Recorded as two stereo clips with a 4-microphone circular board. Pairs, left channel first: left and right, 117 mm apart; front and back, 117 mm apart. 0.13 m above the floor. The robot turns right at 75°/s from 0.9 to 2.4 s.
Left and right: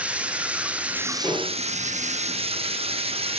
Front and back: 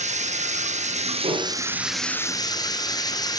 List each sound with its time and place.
0.0 s running water: 170° right, 1.0 m; by 3.4 s 55° right, 1.0 m
1.2 s dishes clattering: straight behind, 8 m; by 1.6 s 155° right, 8 m